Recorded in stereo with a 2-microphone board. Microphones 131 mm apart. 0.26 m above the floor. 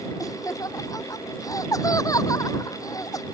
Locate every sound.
0.2 s laughter: 25° left (ahead or behind)